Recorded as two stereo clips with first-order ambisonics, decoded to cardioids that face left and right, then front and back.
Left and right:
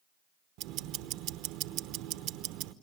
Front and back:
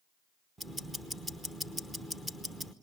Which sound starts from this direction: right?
Ticking, at 0.6 s.